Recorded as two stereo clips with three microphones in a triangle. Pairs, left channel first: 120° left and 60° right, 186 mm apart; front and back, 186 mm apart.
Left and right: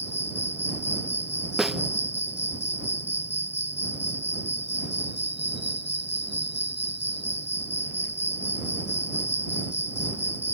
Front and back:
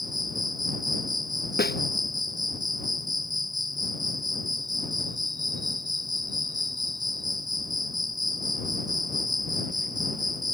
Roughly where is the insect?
Behind left.